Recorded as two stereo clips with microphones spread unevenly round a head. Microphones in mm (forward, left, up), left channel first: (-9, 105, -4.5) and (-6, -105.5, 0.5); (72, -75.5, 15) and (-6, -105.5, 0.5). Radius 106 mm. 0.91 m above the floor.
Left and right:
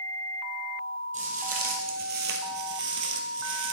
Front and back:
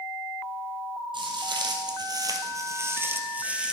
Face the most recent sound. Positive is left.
turn(degrees=-75)